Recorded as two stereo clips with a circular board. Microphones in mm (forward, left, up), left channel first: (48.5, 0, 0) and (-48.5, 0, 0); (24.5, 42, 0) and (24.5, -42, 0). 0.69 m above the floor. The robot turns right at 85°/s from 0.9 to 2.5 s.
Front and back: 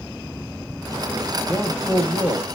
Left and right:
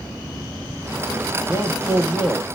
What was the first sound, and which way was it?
A man speaking, 75° left.